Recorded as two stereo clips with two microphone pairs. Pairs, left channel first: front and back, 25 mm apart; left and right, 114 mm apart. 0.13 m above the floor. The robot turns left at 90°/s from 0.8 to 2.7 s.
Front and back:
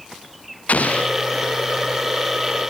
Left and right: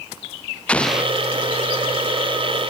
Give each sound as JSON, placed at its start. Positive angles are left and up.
{"t": 0.7, "sound": "an explosion", "azimuth_deg": 10}